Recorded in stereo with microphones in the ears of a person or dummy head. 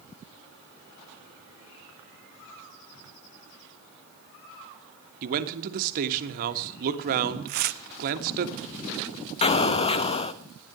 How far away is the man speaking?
About 1.5 m.